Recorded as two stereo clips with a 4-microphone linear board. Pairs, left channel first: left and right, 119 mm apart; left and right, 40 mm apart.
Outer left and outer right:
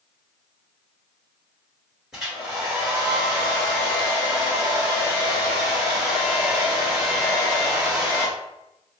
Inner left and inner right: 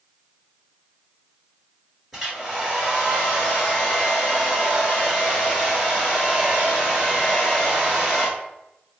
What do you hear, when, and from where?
2.1 s a hair dryer: 5° right (ahead or behind), 1.8 m